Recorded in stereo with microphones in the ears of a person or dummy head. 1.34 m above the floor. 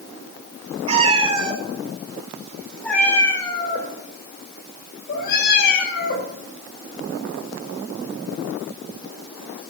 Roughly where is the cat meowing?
Right.